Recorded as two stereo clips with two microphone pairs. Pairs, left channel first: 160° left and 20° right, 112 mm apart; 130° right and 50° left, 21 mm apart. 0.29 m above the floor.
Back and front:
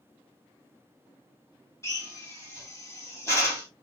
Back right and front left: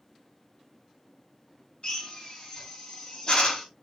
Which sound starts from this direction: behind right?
A drill, at 1.8 s.